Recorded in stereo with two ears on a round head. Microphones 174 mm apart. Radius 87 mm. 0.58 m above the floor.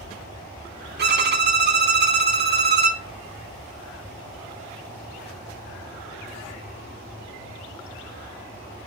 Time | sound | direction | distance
1.0 | a violin | 55° right (ahead or behind) | 0.5 m